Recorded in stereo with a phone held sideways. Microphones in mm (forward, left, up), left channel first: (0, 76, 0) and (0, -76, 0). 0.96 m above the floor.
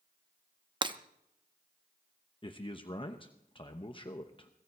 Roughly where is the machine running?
No machine running in this recording.